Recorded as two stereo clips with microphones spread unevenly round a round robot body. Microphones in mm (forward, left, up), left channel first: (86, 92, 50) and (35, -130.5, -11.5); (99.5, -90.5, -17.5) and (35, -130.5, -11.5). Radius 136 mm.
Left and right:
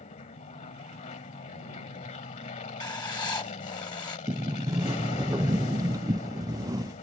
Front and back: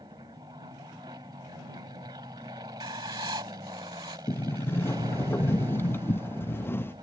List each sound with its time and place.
0.0 s an aircraft: 145° left
2.8 s writing: 155° left
4.3 s a sliding door: 30° right